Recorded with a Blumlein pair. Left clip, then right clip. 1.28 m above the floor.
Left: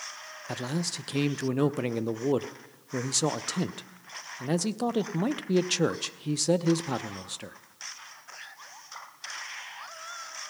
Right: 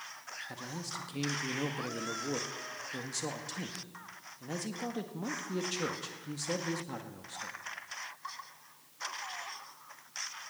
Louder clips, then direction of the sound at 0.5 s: Left 13 dB; 45° left.